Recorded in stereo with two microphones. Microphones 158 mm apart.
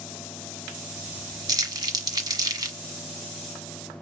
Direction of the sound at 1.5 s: 25° right (ahead or behind).